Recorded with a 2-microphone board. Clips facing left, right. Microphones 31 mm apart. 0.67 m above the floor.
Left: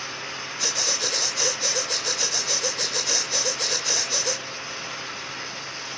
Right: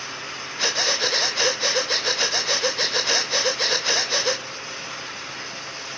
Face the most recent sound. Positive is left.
turn(degrees=-35)  # may be behind; listen again after turning